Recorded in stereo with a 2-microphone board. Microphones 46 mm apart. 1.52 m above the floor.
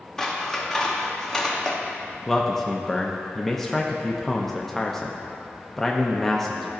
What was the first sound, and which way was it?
Scissors, 10° left (ahead or behind).